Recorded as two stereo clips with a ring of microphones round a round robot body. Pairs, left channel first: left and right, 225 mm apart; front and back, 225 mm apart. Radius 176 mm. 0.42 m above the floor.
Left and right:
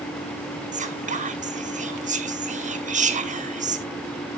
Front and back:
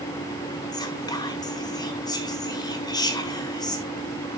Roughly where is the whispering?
Ahead right.